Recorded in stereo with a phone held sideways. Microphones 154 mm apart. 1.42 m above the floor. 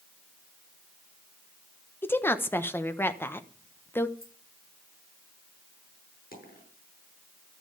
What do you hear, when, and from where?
2.0 s a woman speaking: 15° left (ahead or behind), 1.1 m
4.2 s keys jangling: 85° left, 6 m
6.3 s a dropped coin: 80° left, 7 m